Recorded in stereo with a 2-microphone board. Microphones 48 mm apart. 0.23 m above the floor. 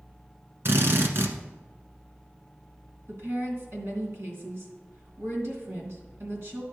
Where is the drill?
60° right (ahead or behind), 1.2 m.